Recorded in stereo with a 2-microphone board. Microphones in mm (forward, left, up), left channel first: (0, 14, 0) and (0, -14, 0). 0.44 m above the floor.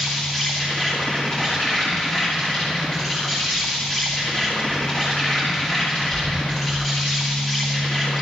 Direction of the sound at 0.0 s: 20° left (ahead or behind).